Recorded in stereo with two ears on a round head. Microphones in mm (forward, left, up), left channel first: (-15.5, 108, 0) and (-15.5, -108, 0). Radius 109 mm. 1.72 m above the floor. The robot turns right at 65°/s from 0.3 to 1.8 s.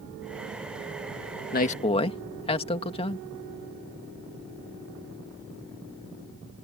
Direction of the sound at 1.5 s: 40° left (ahead or behind).